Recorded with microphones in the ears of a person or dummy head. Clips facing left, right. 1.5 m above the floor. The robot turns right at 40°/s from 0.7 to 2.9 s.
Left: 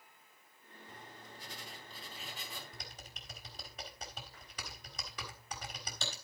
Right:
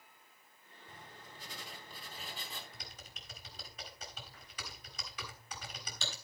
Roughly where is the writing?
Right.